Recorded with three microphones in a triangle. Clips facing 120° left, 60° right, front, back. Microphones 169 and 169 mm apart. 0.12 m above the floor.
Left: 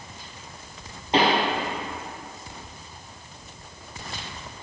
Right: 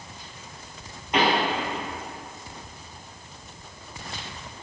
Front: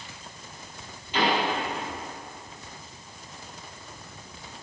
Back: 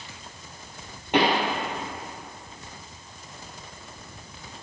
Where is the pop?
175° left, 2 m.